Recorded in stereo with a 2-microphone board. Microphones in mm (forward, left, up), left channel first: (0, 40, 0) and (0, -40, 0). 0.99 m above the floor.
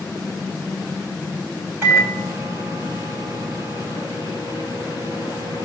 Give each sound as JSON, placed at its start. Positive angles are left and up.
{"t": 1.8, "sound": "a microwave", "side_deg": -25, "distance_m": 5.5}